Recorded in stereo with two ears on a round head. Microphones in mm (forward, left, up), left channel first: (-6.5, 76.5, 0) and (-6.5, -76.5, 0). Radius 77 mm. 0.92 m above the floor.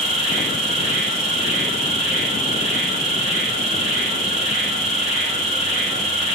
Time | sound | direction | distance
0.0 | an insect | 30° right (ahead or behind) | 1.5 m